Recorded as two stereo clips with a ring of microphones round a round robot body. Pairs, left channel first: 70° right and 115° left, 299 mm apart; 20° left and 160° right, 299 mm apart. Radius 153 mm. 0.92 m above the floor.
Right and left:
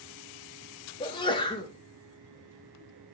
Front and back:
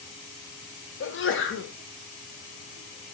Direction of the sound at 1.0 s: Straight ahead.